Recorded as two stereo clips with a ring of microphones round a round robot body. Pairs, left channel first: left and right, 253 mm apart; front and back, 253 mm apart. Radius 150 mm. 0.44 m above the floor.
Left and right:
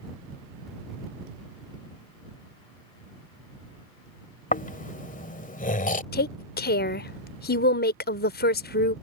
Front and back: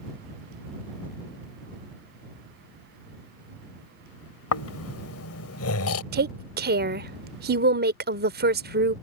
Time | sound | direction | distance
4.5 | snoring | 30° left | ?
6.1 | a woman speaking | 135° left | ?